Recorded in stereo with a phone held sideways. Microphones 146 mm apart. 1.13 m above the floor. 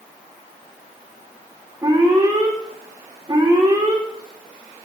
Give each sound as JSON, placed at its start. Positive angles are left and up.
{"t": 1.8, "sound": "an alarm", "side_deg": -25, "distance_m": 2.0}